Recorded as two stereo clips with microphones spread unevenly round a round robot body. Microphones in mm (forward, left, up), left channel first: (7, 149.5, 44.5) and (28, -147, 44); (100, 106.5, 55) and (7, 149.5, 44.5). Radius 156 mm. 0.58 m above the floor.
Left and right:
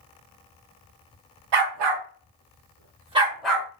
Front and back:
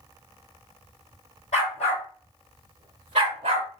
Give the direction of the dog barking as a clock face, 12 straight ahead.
2 o'clock.